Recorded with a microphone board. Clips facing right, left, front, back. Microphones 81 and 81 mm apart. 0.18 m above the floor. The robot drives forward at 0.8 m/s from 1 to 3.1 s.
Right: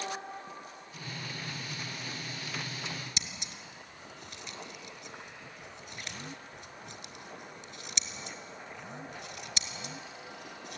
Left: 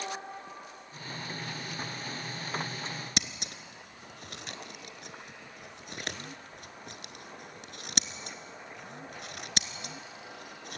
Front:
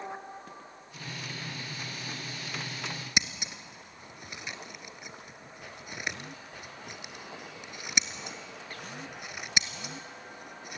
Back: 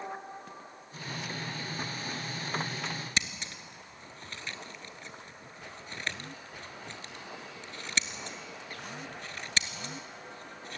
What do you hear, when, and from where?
3.2 s scissors: 75° left, 0.9 m